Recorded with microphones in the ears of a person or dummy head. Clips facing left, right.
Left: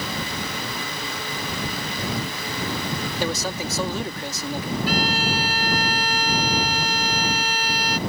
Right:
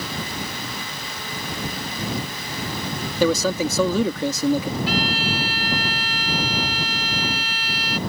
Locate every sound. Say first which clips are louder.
3.2 s a man speaking: right 10 dB; 75° right (ahead or behind)
4.9 s a violin: even; 45° left (ahead or behind)